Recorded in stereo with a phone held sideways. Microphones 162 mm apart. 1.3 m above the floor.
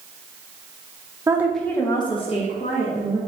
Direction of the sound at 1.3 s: 20° right (ahead or behind).